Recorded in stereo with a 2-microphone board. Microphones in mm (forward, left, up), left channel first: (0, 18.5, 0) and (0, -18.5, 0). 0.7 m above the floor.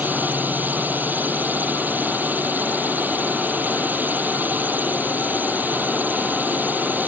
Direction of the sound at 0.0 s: 50° right (ahead or behind).